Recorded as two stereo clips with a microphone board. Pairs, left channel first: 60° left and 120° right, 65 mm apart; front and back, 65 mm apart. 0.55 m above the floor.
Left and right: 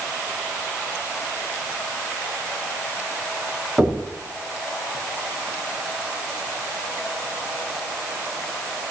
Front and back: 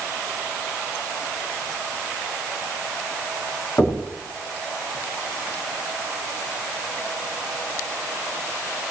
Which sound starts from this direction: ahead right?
Knocking, at 3.8 s.